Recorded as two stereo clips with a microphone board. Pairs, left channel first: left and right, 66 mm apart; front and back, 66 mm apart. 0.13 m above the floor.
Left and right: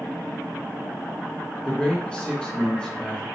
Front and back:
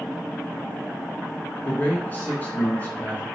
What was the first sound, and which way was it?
A man speaking, 25° left.